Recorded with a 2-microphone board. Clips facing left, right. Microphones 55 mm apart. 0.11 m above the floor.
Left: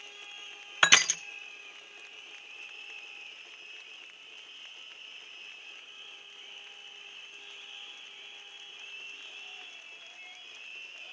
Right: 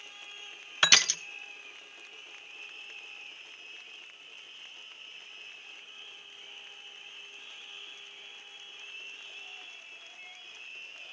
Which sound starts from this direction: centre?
Crushing, at 0.8 s.